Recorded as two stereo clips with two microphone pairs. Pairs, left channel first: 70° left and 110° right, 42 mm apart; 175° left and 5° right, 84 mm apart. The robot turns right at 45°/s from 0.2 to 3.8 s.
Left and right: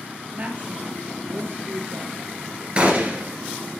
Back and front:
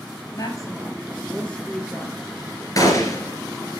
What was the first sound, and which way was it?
A woman speaking, 160° right.